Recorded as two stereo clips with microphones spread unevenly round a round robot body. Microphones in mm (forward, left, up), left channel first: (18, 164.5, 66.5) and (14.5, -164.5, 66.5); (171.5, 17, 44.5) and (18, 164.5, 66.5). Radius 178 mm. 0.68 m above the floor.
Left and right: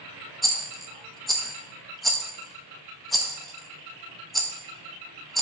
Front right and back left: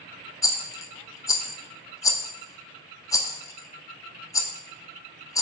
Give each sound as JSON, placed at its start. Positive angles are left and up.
{"t": 0.4, "sound": "a rattle", "azimuth_deg": 0, "distance_m": 0.5}